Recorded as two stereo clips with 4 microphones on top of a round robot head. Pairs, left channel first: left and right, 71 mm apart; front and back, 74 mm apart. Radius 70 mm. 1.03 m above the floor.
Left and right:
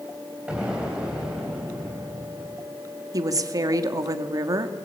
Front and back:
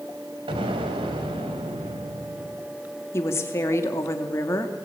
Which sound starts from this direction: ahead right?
A woman speaking, at 3.1 s.